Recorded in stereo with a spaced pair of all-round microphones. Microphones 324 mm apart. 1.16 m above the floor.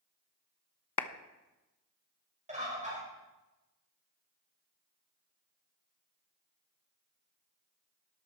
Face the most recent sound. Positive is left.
turn(degrees=-20)  # may be behind; listen again after turning